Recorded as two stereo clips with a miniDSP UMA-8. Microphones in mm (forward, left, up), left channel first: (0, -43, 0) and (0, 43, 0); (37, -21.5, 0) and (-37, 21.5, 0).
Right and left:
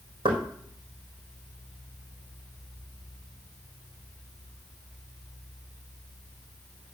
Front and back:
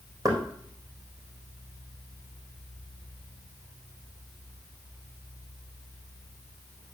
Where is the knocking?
105° left, 3.5 m.